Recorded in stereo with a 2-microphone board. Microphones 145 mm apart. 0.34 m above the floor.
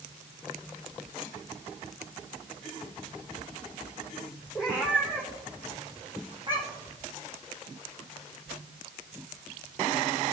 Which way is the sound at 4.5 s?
5° right (ahead or behind).